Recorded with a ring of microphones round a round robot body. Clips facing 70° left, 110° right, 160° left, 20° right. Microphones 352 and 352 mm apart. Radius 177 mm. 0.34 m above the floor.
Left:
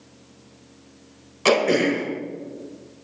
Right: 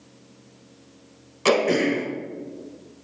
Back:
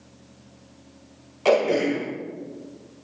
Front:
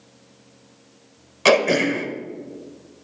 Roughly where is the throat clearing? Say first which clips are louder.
Left 1 dB, front 2 dB; ahead.